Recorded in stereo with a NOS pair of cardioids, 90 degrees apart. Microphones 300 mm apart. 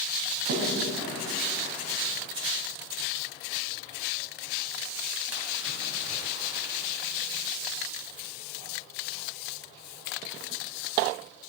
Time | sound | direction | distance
0.5 | a splash | 55° right | 4 m